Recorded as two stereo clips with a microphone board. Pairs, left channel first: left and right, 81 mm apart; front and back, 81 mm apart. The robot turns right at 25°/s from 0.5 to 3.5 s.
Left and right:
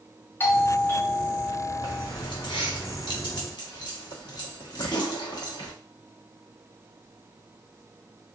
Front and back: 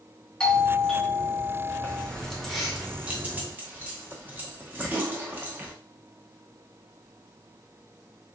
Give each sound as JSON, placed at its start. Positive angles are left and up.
{"t": 0.4, "sound": "a doorbell", "azimuth_deg": 70, "distance_m": 0.6}
{"t": 1.8, "sound": "keys jangling", "azimuth_deg": 75, "distance_m": 0.8}